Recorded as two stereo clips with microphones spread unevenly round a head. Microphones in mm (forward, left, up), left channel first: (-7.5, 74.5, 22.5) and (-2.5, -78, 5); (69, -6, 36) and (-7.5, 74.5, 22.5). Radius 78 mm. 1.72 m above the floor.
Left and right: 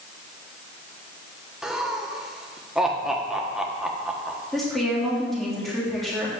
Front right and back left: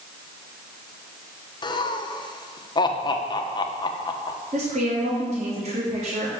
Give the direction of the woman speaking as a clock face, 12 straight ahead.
6 o'clock.